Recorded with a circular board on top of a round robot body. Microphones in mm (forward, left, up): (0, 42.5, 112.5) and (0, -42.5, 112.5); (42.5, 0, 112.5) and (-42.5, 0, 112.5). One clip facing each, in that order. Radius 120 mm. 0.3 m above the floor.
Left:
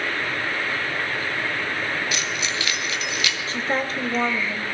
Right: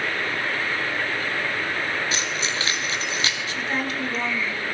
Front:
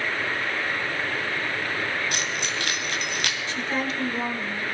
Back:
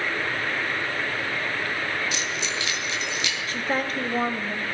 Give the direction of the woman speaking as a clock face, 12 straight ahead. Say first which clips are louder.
Left 2 dB, back 3 dB; 7 o'clock.